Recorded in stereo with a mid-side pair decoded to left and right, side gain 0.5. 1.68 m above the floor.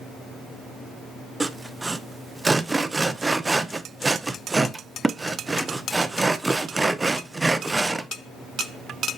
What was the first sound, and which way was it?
Sawing, 15° right.